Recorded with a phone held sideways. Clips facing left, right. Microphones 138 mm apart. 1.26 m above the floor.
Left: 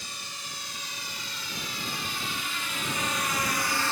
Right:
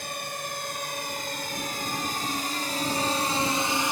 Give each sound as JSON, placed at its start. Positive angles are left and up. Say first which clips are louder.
{"t": 0.0, "sound": "a drone", "louder": "right 9 dB", "side_deg": -55}